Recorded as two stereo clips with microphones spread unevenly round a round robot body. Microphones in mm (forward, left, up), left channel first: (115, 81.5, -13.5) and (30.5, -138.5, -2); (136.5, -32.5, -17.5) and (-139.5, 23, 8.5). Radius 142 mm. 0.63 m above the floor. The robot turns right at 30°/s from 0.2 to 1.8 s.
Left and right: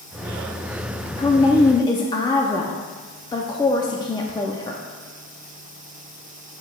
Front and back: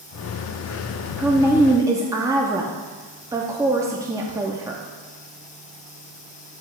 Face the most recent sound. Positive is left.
turn(degrees=90)